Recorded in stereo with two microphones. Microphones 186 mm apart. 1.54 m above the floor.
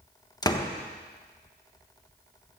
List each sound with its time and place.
0.4 s a door slam: 20° left (ahead or behind), 1.2 m